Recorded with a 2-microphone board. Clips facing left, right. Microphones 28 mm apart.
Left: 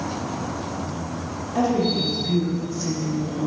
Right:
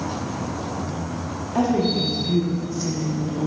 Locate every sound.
1.6 s a woman speaking: 15° right (ahead or behind), 0.8 m